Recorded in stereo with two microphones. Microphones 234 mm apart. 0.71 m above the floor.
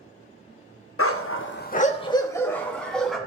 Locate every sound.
1.0 s a dog barking: 70° left (ahead or behind), 0.6 m; by 3.2 s centre (ahead or behind), 1.6 m